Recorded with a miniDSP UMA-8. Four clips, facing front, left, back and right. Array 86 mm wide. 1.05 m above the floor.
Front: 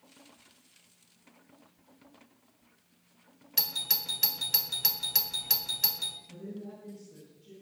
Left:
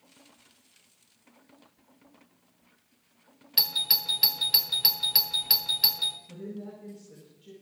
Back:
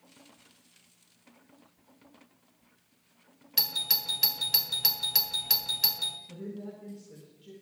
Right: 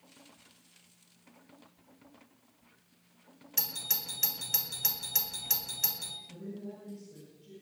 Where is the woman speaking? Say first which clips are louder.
Left 1 dB, back 2 dB; 135° left, 4.5 m.